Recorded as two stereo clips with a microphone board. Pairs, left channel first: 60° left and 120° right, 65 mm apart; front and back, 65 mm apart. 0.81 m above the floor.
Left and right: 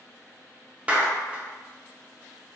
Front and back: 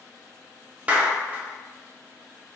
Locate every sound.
0.9 s a clap: 150° right, 0.6 m